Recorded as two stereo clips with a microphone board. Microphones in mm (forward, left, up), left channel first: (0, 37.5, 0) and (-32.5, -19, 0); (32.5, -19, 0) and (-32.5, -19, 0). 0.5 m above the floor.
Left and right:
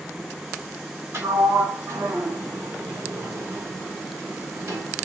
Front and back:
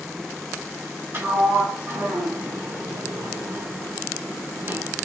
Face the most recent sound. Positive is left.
turn(degrees=-140)